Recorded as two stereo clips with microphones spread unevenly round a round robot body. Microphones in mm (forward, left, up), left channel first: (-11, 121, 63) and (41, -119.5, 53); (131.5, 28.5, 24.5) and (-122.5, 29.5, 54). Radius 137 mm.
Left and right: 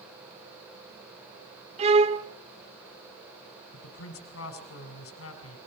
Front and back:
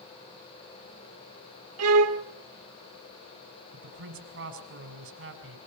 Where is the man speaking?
140° left, 4.5 m.